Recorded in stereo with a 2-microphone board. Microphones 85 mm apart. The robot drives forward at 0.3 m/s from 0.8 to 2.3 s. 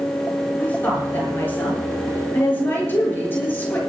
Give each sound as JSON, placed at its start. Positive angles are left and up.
{"t": 0.6, "sound": "a woman speaking", "side_deg": 20, "distance_m": 8.0}